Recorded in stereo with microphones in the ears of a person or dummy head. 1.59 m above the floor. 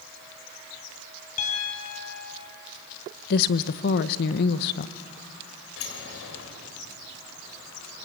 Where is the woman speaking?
55° left (ahead or behind), 1.0 m.